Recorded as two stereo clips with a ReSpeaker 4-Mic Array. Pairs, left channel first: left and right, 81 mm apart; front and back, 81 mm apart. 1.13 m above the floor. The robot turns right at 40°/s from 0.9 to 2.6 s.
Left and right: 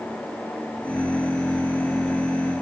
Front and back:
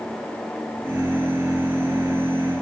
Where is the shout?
I don't hear a shout.